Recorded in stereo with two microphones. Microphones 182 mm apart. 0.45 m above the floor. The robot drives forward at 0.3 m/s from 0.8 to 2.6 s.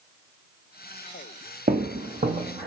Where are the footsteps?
55° right (ahead or behind), 0.7 m; by 2.7 s 35° right (ahead or behind), 1.2 m.